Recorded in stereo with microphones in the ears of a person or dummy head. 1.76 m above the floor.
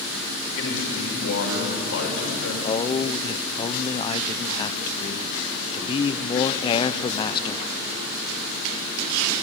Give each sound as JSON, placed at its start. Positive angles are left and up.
{"t": 0.6, "sound": "a man speaking", "side_deg": 75, "distance_m": 6.0}
{"t": 2.6, "sound": "a man speaking", "side_deg": 20, "distance_m": 0.8}